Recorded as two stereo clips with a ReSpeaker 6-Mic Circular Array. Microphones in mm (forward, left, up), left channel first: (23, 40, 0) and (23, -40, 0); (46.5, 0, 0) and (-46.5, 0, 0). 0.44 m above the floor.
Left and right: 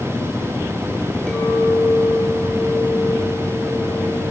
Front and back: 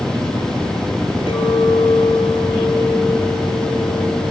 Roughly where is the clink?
Ahead.